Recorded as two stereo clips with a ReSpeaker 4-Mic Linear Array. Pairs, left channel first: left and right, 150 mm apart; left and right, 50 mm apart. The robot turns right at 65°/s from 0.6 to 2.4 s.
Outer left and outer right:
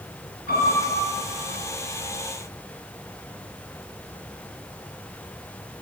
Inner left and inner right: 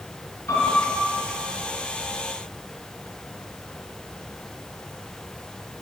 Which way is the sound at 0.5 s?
85° left.